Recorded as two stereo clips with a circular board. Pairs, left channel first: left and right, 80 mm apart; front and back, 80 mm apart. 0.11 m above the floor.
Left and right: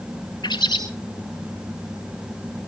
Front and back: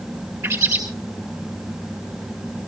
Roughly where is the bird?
Behind left.